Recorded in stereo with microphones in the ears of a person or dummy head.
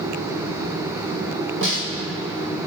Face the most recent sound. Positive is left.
turn(degrees=-65)  # may be behind; listen again after turning